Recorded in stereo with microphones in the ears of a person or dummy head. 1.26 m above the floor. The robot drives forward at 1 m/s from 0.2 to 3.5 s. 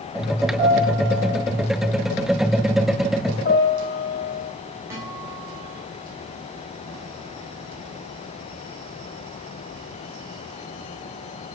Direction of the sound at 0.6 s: 30° right (ahead or behind).